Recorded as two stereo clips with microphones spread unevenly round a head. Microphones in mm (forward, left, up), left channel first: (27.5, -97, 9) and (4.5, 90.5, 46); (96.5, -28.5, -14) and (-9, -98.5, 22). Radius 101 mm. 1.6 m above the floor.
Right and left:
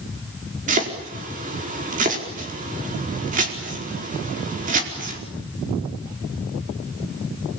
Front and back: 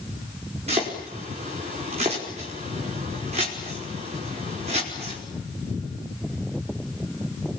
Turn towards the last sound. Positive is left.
turn(degrees=150)